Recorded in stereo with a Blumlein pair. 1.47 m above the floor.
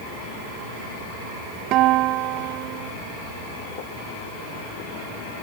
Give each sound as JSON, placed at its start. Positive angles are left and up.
{"t": 1.7, "sound": "a guitar", "azimuth_deg": -40}